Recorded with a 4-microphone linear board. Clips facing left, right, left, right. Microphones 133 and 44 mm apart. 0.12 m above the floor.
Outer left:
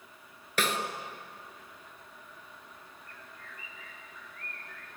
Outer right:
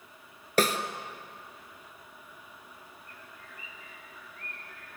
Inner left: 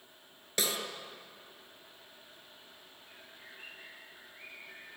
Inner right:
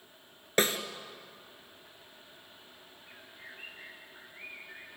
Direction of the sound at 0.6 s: 45° right (ahead or behind).